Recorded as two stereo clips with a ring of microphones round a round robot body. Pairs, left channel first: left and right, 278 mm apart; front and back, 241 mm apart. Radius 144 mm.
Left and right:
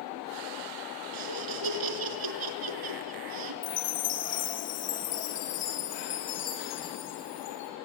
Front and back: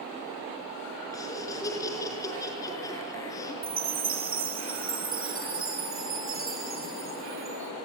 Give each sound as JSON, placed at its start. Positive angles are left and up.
{"t": 1.1, "sound": "laughter", "azimuth_deg": -80, "distance_m": 5.0}
{"t": 3.6, "sound": "a chime", "azimuth_deg": 140, "distance_m": 6.0}